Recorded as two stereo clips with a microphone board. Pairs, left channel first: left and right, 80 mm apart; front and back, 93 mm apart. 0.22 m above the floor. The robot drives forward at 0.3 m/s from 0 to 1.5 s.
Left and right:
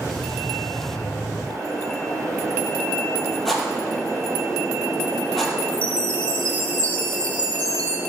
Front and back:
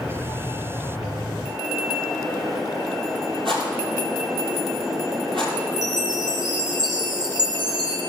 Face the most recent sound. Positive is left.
turn(degrees=155)